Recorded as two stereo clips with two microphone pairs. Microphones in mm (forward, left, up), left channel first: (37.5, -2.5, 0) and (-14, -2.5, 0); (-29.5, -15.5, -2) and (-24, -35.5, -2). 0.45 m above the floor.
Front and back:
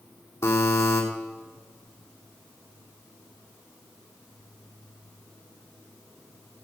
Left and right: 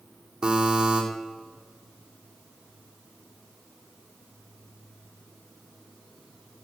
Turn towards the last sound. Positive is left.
turn(degrees=-25)